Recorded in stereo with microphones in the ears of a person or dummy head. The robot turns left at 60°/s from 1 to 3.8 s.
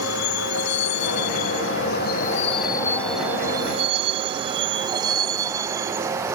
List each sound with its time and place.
0.0 s a vehicle: 75° left (ahead or behind); by 6.4 s 10° right (ahead or behind)